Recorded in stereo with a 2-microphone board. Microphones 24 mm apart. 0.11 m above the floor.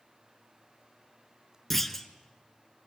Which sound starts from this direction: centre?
A clunk, at 1.7 s.